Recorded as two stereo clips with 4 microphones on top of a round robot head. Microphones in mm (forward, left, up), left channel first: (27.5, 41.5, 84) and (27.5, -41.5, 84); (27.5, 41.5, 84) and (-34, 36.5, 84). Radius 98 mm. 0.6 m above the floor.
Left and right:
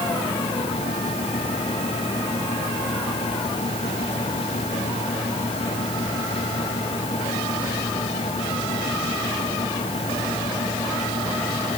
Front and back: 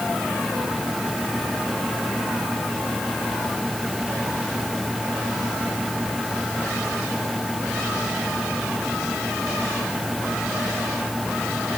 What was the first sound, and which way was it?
Only background noise.